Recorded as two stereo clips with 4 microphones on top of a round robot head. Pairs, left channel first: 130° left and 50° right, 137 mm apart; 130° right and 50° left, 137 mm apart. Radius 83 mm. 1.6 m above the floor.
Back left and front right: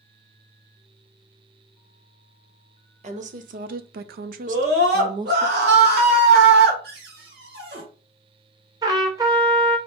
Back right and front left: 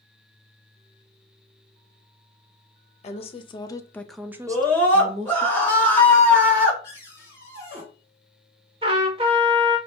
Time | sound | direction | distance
3.0 | a woman speaking | 90° right | 0.8 m
4.5 | a scream | 55° right | 2 m
6.8 | a cupboard door | 60° right | 1.5 m
8.8 | a trumpet | 10° left | 0.6 m